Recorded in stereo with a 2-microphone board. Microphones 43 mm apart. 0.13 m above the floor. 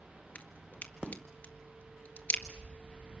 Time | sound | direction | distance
0.3 | a crack | 40° left (ahead or behind) | 1.8 m